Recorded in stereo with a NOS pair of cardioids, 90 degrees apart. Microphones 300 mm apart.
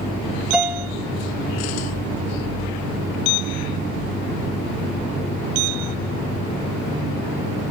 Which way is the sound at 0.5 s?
5° right.